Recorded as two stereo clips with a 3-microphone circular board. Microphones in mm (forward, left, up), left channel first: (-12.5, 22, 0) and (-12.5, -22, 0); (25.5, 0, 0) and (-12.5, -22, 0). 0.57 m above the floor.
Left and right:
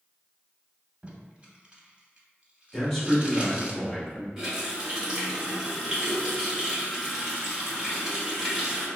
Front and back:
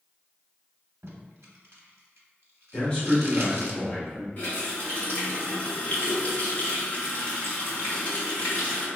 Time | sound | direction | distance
1.0 | tape being pulled | 150° right | 0.7 m
2.7 | a man speaking | 20° left | 1.0 m
4.4 | a running tap | 10° right | 1.2 m